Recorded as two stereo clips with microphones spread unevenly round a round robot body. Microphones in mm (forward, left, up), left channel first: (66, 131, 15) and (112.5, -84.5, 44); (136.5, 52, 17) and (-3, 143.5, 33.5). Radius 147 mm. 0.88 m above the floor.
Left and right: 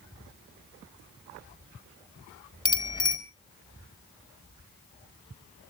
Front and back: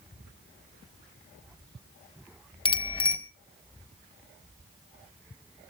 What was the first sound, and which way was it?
A bicycle bell, 30° left.